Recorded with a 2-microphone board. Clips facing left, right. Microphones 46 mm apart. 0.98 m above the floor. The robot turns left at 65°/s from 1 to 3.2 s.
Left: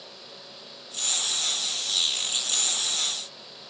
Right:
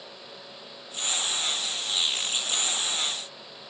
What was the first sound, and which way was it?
Only background noise.